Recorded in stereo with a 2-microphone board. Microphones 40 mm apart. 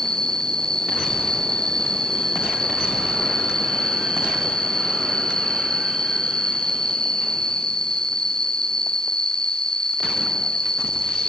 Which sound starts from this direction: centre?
An insect, at 0.0 s.